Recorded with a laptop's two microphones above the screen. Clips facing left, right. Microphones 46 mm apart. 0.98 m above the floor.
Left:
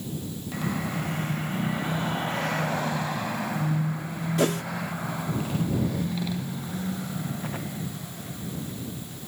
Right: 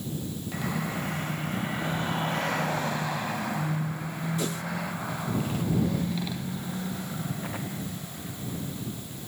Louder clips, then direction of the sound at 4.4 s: Left 11 dB; 80° left.